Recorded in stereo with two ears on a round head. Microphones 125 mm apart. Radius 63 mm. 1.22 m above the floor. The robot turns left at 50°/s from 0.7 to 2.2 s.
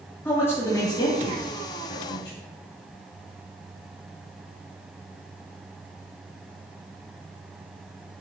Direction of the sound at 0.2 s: 20° left (ahead or behind).